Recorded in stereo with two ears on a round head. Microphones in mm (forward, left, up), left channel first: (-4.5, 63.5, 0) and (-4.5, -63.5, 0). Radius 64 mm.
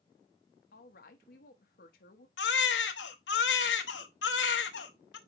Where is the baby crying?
90° left, 1.1 m.